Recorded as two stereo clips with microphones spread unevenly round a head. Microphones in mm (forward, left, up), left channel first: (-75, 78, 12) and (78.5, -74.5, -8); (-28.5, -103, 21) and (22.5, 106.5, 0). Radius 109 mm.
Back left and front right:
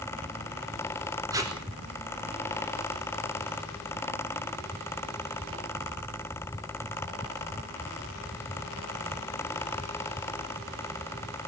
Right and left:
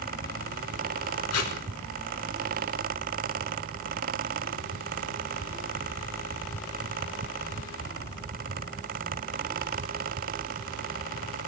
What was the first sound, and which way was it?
Tape being pulled, 120° right.